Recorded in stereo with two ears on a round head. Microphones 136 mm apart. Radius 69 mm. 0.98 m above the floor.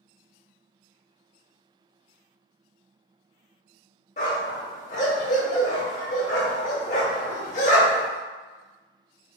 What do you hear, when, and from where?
4.2 s a dog barking: 50° left (ahead or behind), 0.9 m